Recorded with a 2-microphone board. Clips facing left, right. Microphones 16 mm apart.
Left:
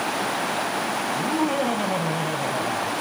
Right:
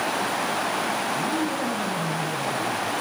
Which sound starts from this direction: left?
Laughter, at 1.1 s.